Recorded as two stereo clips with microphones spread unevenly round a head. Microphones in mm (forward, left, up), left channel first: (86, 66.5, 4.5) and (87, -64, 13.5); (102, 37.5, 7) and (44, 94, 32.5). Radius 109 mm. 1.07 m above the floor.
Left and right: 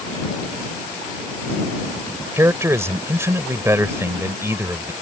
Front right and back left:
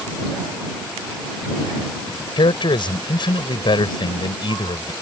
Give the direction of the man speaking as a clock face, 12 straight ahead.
1 o'clock.